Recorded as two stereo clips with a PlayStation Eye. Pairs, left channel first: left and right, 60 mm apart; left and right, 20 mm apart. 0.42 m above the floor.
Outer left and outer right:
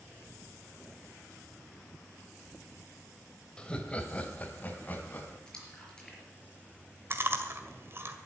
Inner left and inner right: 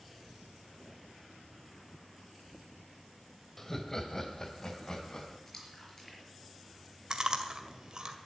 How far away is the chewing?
About 1.8 m.